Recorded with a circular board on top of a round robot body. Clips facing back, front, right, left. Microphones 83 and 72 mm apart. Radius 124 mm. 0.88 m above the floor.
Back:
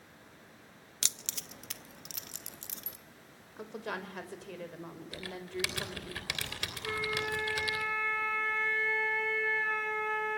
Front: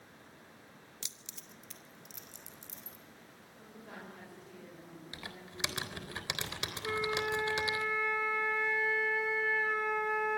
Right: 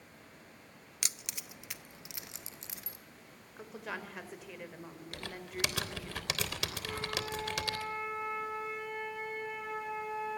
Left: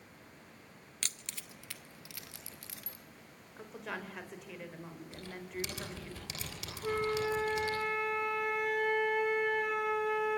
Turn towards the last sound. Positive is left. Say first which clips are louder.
# front 1 dB, left 10 dB
turn(degrees=75)